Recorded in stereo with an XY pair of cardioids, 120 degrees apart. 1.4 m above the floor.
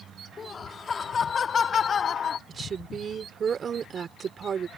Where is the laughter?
35° left; by 2.4 s 45° left.